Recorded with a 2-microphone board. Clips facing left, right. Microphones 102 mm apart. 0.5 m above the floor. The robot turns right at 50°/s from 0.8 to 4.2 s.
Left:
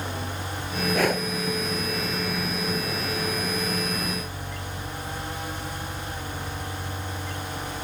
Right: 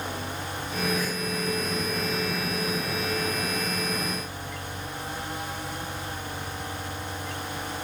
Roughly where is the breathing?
Left.